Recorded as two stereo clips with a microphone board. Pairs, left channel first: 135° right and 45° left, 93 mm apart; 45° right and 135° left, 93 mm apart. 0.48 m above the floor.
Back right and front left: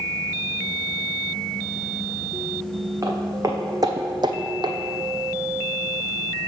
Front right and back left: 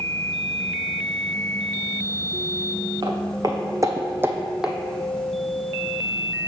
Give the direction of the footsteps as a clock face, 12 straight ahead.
9 o'clock.